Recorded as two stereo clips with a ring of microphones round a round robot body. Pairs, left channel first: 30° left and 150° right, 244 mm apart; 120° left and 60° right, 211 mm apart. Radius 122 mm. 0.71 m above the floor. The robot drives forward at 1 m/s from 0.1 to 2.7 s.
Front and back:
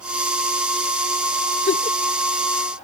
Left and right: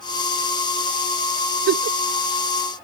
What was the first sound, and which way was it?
A giggle, 30° right.